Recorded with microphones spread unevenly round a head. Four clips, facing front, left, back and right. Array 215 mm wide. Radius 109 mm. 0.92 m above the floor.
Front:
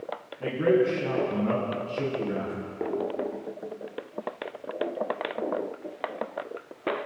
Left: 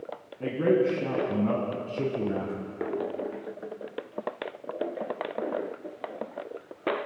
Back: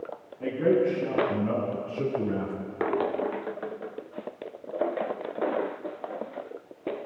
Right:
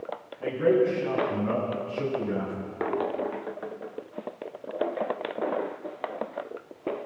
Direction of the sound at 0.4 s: 95° left.